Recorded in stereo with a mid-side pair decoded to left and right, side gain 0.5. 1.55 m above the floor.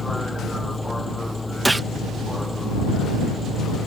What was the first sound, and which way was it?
A vehicle, 10° left.